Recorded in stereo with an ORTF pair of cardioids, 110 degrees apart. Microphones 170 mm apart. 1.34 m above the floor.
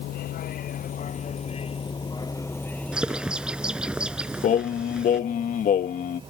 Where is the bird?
5° right.